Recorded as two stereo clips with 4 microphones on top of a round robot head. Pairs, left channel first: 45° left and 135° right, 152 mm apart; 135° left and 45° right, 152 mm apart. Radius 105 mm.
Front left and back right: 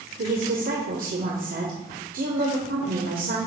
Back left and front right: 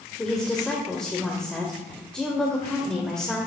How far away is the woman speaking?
About 1.5 m.